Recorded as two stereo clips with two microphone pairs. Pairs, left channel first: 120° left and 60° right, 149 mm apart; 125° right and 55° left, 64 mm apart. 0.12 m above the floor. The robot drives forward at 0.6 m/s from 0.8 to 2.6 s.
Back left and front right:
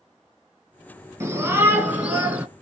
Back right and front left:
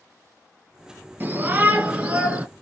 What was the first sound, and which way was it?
A shout, 5° left.